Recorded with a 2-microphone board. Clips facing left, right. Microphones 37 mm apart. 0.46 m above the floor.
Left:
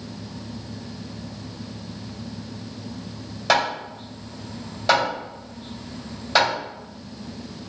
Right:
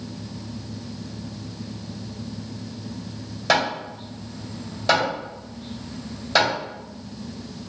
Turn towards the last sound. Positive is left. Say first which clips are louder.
# even
turn(degrees=5)  # may be behind; listen again after turning